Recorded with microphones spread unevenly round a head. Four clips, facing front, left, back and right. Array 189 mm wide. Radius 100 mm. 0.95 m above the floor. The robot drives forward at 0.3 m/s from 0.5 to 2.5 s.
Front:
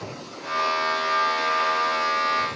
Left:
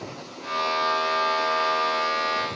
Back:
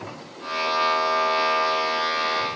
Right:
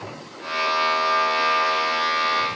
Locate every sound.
Only background noise.